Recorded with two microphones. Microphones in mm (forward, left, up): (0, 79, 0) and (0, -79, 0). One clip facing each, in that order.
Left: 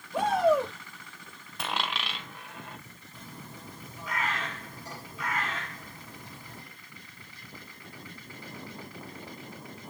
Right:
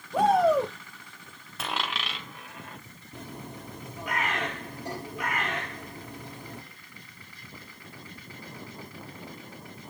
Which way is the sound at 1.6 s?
Centre (ahead or behind).